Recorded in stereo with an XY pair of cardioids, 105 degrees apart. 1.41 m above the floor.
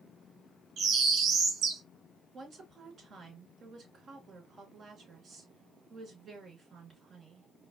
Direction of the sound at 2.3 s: 50° right.